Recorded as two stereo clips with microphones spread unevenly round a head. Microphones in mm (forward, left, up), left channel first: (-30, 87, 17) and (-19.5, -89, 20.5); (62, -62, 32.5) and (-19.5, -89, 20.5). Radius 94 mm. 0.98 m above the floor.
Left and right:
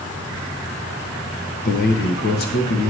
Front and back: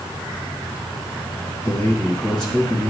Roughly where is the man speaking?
Left.